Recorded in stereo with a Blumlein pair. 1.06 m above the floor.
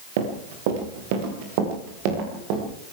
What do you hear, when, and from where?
0.2 s running footsteps: 50° right, 5 m; by 2.6 s 40° right, 7.5 m